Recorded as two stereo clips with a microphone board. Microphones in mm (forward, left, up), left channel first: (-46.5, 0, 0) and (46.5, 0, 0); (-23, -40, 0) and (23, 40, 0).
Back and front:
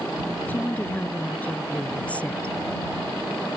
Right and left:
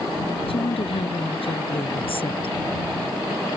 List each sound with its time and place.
0.5 s a woman speaking: 110° right; by 2.6 s 105° right